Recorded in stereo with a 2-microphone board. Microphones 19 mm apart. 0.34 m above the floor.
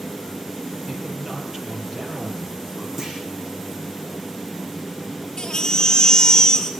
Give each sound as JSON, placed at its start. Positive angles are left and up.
{"t": 0.9, "sound": "a man speaking", "side_deg": -30, "distance_m": 8.5}
{"t": 3.0, "sound": "a clunk", "side_deg": -25, "distance_m": 10.0}
{"t": 5.4, "sound": "a baby crying", "side_deg": 35, "distance_m": 3.0}